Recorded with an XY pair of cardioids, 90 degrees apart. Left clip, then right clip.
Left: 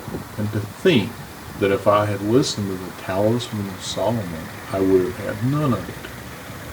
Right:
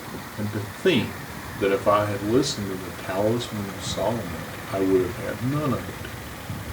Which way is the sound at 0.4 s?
35° left.